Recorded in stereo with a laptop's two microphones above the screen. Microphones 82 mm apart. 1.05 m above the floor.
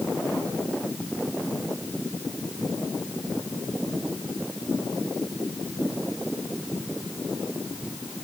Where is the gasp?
I don't hear a gasp.